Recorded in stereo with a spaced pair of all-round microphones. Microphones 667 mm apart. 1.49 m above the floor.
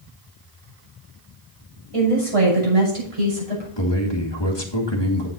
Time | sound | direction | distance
1.9 | a woman speaking | 50° right (ahead or behind) | 6.5 m
3.8 | a man speaking | 40° left (ahead or behind) | 2.5 m